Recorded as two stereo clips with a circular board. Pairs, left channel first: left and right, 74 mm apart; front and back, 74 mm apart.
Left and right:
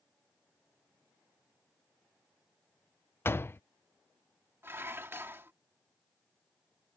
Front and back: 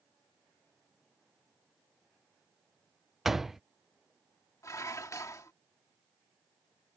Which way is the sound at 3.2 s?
100° left.